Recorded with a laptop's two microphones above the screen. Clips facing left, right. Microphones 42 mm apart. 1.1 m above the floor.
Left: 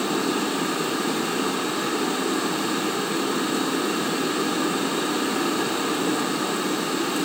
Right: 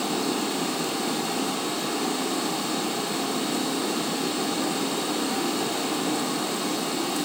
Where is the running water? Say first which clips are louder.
Left 3 dB; 35° left (ahead or behind), 8.5 m.